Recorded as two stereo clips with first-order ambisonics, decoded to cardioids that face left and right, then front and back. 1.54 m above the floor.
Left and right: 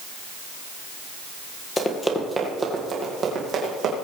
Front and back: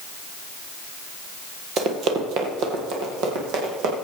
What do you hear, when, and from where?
1.8 s running footsteps: 155° left, 1.8 m; by 3.9 s 150° right, 4 m